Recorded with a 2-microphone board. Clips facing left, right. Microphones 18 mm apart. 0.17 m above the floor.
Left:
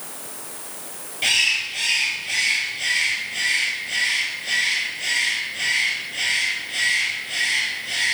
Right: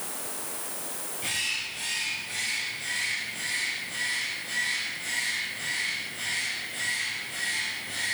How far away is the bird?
About 2 m.